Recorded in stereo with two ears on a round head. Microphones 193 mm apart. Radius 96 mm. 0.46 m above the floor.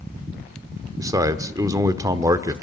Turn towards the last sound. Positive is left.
turn(degrees=-15)  # may be behind; listen again after turning